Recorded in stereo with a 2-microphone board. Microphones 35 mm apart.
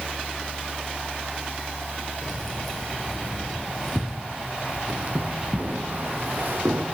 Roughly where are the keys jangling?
Centre.